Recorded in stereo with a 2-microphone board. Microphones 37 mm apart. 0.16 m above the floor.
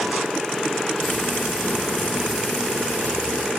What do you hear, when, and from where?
1.0 s frying: 50° left (ahead or behind), 2.5 m